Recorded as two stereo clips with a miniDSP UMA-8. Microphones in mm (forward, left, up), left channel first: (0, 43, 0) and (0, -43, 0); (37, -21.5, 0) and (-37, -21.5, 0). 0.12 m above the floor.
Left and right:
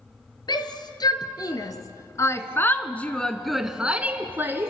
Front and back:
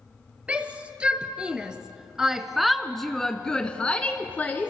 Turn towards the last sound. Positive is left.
turn(degrees=-55)